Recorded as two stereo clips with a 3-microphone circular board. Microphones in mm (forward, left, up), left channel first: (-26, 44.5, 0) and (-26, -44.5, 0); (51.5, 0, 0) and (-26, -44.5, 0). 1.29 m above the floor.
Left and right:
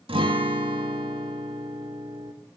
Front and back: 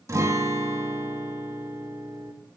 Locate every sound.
0.1 s a guitar: 95° right, 1.4 m